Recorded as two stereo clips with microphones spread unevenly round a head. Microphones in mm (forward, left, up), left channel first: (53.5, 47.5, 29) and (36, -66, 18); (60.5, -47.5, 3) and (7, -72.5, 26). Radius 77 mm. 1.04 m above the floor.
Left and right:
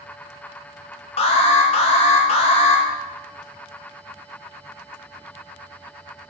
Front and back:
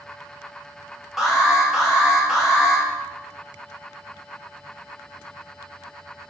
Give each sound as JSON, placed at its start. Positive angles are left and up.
{"t": 1.2, "sound": "an alarm", "azimuth_deg": 100, "distance_m": 0.8}